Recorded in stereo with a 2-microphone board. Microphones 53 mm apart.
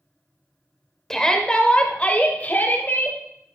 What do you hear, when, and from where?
1.1 s a shout: 10° left (ahead or behind), 1.5 m; by 3.2 s 40° left (ahead or behind), 2 m